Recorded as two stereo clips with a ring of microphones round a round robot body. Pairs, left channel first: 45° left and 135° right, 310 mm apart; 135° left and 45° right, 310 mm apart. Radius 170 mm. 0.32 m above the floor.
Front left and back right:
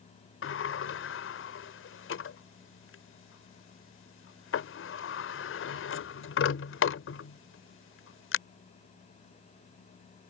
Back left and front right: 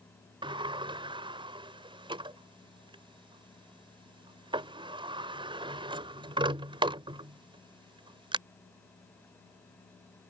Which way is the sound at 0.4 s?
25° left.